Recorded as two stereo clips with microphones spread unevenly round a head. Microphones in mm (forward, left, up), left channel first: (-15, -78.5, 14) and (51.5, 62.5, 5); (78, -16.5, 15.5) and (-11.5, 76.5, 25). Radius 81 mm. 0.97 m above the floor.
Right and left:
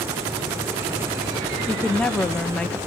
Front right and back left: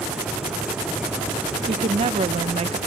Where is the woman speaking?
160° left, 0.6 m.